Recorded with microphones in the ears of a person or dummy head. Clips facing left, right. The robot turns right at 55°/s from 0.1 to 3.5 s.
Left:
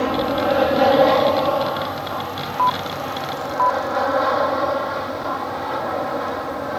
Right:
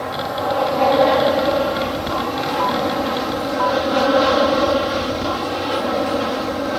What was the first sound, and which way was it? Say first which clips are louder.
An aircraft: left 4 dB; 125° left.